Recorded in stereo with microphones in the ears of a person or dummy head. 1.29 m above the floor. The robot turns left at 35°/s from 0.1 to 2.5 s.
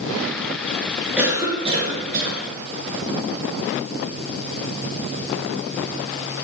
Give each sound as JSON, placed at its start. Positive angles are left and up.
{"t": 1.2, "sound": "a cough", "azimuth_deg": -10, "distance_m": 1.4}